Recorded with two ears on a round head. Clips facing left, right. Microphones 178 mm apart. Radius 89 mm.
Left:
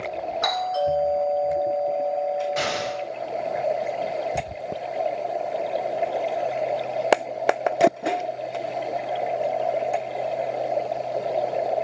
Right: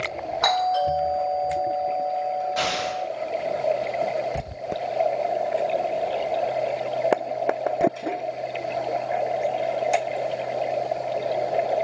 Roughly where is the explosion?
Left.